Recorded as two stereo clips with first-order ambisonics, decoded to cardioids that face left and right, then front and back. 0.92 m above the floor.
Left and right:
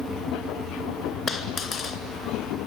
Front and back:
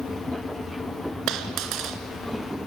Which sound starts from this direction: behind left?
A dropped coin, at 1.3 s.